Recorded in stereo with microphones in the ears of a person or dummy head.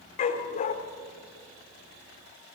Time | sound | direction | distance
0.2 | a dog barking | 40° left (ahead or behind) | 1.6 m